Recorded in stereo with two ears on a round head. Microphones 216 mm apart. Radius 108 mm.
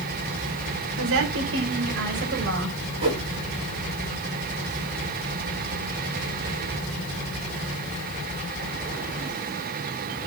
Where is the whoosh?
25° right (ahead or behind), 5.5 m.